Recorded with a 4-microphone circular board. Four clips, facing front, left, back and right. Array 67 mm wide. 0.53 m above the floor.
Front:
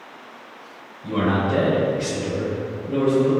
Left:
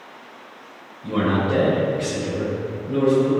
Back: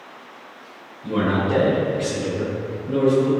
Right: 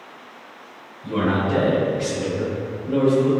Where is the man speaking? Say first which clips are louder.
Even, even; 120° left, 1.7 m; by 3.3 s 95° right, 1.5 m.